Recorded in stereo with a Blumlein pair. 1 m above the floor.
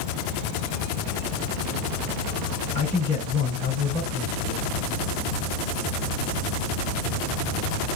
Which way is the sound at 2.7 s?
55° left.